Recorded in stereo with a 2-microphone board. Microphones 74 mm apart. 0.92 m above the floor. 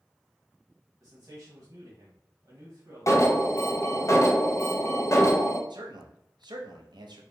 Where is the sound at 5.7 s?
75° right (ahead or behind), 0.7 m.